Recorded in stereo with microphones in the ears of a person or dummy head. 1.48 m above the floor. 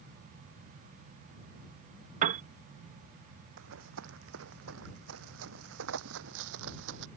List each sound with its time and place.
2.2 s a piano: 45° right (ahead or behind)
3.6 s running footsteps: 70° right (ahead or behind); by 7.1 s 65° right (ahead or behind)